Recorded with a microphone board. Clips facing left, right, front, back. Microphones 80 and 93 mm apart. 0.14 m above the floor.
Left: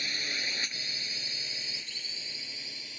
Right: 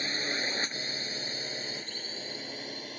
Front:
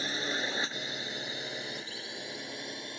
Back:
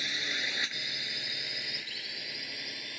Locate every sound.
0.0 s a drone: 45° right; by 3.0 s 60° right